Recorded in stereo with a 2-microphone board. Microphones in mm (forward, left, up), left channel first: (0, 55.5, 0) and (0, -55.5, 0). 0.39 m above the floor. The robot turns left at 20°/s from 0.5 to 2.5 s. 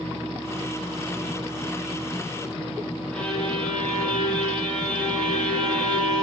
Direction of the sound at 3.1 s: 10° left (ahead or behind).